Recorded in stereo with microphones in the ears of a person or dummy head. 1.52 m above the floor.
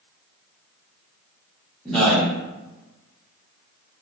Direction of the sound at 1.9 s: 5° left (ahead or behind).